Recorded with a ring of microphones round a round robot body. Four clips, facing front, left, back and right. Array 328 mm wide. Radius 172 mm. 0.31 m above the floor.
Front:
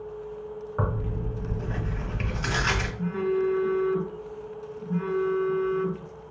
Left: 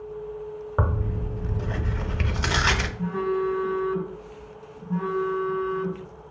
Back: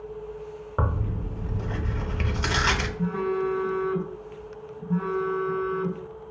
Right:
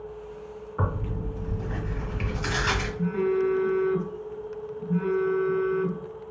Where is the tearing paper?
120° left, 0.9 m.